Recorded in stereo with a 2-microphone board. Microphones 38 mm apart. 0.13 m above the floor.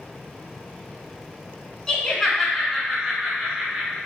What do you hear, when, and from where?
1.9 s laughter: 15° left (ahead or behind), 1.1 m; by 4.0 s 25° right (ahead or behind), 1.5 m